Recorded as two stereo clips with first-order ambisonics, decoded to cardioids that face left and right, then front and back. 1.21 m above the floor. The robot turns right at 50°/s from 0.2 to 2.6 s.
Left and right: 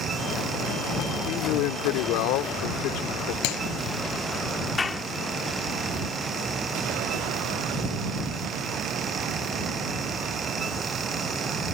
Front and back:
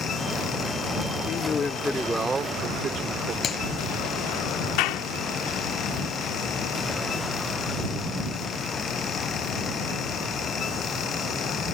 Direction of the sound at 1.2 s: 50° left.